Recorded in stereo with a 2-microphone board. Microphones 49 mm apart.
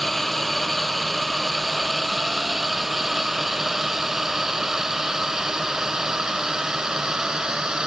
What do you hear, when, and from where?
0.0 s a drone: 5° left (ahead or behind); by 7.9 s 15° right (ahead or behind)